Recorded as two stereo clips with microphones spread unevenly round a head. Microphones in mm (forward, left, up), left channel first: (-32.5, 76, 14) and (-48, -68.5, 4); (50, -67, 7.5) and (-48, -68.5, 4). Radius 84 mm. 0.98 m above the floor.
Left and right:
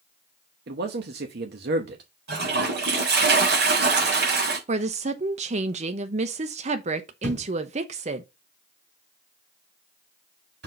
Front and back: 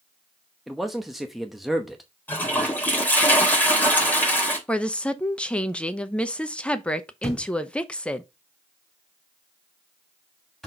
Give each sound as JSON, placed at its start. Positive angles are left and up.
{"t": 0.7, "sound": "a man speaking", "azimuth_deg": -90, "distance_m": 0.9}
{"t": 2.3, "sound": "a toilet flushing", "azimuth_deg": -70, "distance_m": 3.5}
{"t": 4.7, "sound": "a woman speaking", "azimuth_deg": -75, "distance_m": 0.8}
{"t": 7.2, "sound": "a thud", "azimuth_deg": -85, "distance_m": 3.5}